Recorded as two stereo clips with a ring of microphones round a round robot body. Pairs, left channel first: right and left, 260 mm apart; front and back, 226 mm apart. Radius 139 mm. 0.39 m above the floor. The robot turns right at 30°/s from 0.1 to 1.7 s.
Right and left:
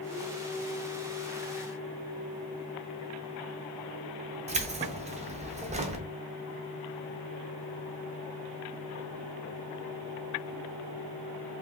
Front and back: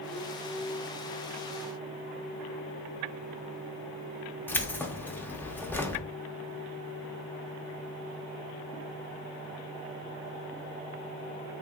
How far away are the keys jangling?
About 0.6 m.